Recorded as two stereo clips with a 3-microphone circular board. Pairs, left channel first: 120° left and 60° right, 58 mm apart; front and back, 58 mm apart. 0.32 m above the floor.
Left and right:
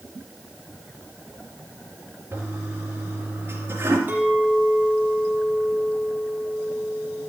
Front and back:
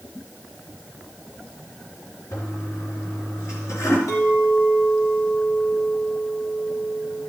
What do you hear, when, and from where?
2.3 s a toilet flushing: 20° right, 3.5 m
4.1 s a clink: 10° right, 6 m